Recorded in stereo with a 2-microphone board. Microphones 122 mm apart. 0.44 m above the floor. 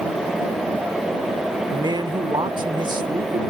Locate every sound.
1.7 s a man speaking: 35° right (ahead or behind)